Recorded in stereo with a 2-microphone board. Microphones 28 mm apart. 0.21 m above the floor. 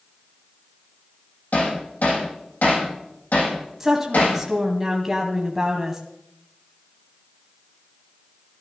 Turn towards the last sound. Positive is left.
turn(degrees=-15)  # may be behind; listen again after turning